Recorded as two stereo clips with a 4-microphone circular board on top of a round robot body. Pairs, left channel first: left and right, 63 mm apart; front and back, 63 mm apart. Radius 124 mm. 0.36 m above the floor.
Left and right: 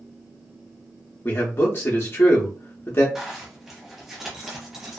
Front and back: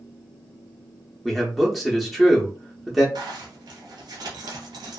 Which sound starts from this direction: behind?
A zipper, at 3.1 s.